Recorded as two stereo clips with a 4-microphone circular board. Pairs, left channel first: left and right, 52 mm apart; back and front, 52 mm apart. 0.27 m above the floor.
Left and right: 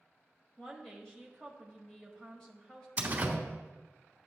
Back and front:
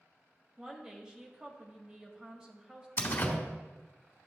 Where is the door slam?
145° right, 1.5 m.